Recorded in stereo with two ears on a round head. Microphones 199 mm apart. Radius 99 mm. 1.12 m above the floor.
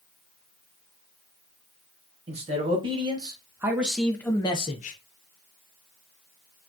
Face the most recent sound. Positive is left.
turn(degrees=35)  # may be behind; listen again after turning